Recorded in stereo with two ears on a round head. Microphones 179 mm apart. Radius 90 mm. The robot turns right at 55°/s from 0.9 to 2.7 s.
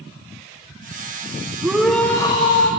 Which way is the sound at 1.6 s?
10° right.